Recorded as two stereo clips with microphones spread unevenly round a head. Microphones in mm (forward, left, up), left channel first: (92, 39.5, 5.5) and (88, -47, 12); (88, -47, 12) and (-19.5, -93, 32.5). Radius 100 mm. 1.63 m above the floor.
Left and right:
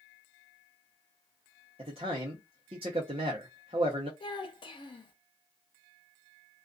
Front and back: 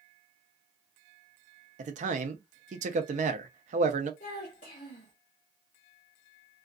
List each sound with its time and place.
1.8 s a man speaking: 145° right, 0.6 m
4.2 s a child speaking: 70° left, 0.9 m